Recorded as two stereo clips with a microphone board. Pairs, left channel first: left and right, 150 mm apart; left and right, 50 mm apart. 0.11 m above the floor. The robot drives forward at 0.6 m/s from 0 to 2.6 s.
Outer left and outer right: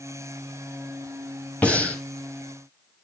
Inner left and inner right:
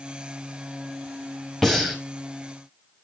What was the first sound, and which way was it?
Breathing, 10° left (ahead or behind).